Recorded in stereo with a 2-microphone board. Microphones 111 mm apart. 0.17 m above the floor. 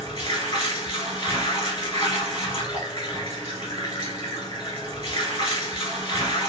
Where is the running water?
45° left (ahead or behind), 1.0 m.